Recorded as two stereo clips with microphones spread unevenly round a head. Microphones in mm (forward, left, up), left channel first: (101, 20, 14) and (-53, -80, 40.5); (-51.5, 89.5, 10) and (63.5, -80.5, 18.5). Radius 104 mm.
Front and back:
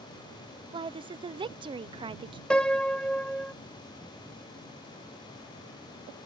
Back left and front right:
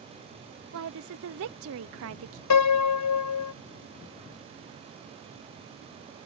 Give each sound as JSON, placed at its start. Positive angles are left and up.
{"t": 0.7, "sound": "a woman speaking", "azimuth_deg": -80}
{"t": 2.5, "sound": "a piano", "azimuth_deg": 120}